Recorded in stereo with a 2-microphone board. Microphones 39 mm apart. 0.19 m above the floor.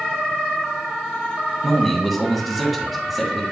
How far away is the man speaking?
About 1.5 m.